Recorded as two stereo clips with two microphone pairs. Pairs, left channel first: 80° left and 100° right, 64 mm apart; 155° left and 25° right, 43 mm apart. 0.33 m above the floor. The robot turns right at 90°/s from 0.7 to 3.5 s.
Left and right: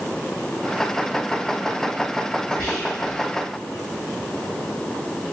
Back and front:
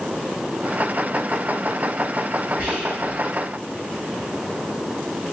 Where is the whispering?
10° left, 1.5 m; by 3.2 s 60° left, 1.5 m.